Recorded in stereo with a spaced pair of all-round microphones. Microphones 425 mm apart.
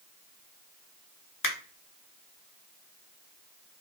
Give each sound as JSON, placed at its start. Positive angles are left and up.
{"t": 1.4, "sound": "a finger snap", "side_deg": 50, "distance_m": 0.9}